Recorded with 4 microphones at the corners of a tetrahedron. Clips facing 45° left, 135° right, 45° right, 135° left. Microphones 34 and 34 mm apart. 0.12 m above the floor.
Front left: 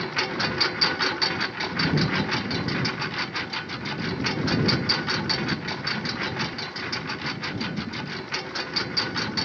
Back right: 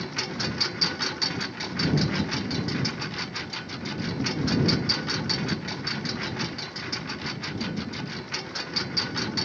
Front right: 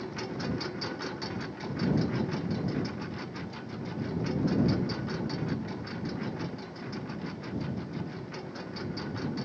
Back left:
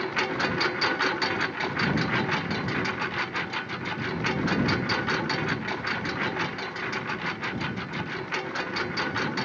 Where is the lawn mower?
110° left; by 9.4 s 120° left.